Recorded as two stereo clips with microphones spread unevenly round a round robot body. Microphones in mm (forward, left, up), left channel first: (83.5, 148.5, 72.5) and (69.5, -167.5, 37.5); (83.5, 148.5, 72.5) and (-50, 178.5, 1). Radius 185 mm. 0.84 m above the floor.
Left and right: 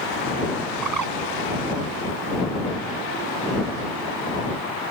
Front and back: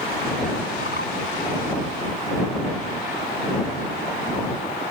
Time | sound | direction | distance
0.8 | a bird | 65° right | ?